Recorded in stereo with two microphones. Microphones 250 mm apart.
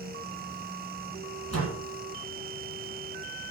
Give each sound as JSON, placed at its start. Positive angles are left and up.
{"t": 1.5, "sound": "a door slam", "side_deg": -75, "distance_m": 4.0}